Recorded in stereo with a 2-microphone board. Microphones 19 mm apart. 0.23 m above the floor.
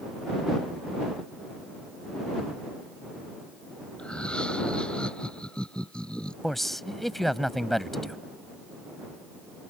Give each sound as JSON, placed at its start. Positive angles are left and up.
{"t": 4.0, "sound": "laughter", "side_deg": 60}
{"t": 6.4, "sound": "a man speaking", "side_deg": 10}